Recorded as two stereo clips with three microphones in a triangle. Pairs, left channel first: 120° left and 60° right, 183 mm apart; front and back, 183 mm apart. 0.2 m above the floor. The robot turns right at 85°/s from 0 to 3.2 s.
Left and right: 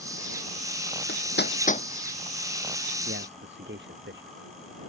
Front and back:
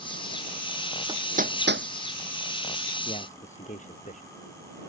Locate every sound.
1.1 s hammering: 115° left; by 1.9 s straight behind
3.0 s a man speaking: 60° right; by 4.3 s 50° right